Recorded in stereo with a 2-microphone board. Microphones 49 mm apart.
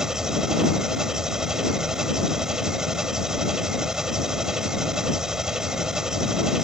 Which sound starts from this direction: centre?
An engine running, at 0.0 s.